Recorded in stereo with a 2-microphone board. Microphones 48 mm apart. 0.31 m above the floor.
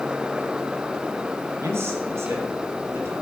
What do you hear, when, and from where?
1.6 s a man speaking: 65° right (ahead or behind), 2.5 m